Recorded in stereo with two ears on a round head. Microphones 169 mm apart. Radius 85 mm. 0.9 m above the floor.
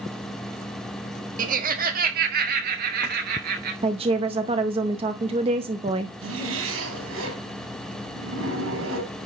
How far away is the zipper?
About 5 m.